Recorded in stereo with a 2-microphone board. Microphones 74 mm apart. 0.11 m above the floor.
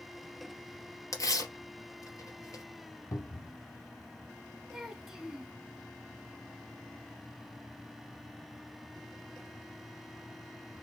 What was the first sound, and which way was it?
Tearing paper, 45° left (ahead or behind).